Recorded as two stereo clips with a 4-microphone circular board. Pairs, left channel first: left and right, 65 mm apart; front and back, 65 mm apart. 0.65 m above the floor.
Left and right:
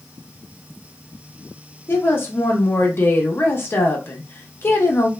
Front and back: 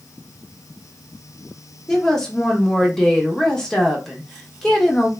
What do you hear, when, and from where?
1.9 s a woman speaking: 75° left, 0.6 m